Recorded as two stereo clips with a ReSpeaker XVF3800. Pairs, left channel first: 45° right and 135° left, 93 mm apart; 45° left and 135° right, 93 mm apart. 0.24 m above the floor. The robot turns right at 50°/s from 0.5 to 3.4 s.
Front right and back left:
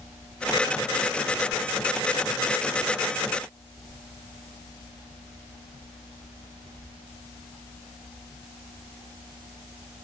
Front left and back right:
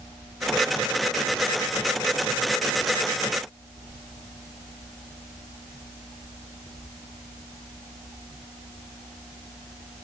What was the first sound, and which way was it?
Only background noise.